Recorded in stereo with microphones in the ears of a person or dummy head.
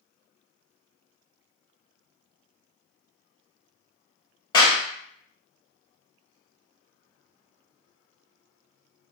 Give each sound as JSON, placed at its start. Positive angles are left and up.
{"t": 4.5, "sound": "a clap", "side_deg": 30, "distance_m": 0.9}